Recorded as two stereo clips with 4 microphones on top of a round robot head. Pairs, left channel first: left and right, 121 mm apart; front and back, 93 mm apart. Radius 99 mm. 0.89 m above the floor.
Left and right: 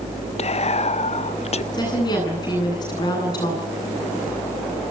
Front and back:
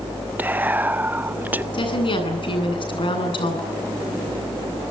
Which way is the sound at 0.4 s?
110° left.